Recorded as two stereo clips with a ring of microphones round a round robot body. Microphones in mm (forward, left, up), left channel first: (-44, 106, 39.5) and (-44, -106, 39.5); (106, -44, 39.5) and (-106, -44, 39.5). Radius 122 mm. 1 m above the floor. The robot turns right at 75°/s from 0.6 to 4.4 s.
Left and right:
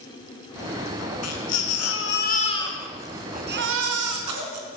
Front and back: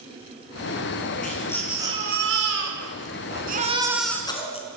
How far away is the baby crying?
About 4.5 m.